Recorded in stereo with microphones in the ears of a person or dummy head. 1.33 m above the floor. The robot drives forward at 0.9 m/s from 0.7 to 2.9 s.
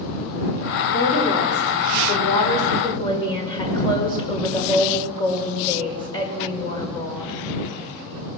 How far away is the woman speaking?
About 4.5 m.